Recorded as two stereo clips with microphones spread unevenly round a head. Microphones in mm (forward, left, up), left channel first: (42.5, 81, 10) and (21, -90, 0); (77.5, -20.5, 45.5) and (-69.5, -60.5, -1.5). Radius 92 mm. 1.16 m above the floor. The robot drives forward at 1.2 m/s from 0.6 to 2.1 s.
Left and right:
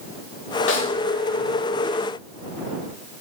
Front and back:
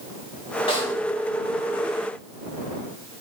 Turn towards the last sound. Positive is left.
turn(degrees=115)